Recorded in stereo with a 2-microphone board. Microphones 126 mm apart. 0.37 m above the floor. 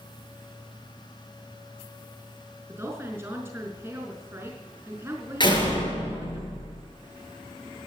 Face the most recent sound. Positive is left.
turn(degrees=40)  # may be behind; listen again after turning